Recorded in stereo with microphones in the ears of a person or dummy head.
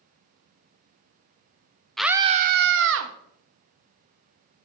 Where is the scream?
Centre (ahead or behind), 0.7 m; by 3.1 s 70° right (ahead or behind), 1.5 m.